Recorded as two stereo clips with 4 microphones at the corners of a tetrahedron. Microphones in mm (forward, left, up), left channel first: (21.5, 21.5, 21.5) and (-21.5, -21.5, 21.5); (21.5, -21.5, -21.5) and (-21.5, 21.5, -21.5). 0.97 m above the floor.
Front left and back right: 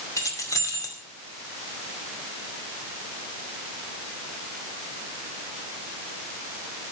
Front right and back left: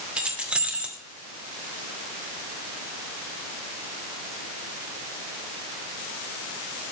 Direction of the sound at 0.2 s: 65° left.